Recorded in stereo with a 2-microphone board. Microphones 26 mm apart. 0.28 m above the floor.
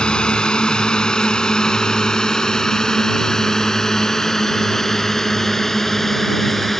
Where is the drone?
40° left (ahead or behind); by 6.8 s 10° left (ahead or behind).